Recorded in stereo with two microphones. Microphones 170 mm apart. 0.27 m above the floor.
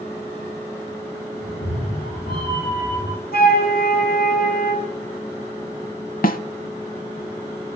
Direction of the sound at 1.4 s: 80° left.